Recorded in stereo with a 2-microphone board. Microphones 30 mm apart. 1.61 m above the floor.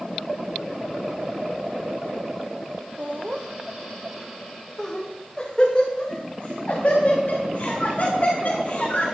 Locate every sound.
3.0 s laughter: 45° right (ahead or behind), 1.1 m; by 9.1 s 50° left (ahead or behind), 3.5 m